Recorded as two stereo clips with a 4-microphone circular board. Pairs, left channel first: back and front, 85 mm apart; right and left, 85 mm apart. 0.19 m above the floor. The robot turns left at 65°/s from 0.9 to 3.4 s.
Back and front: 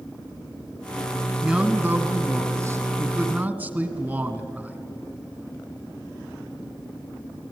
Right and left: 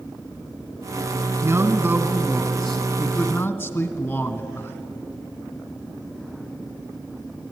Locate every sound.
1.4 s a man speaking: 85° left, 1.7 m; by 4.8 s 45° right, 1.7 m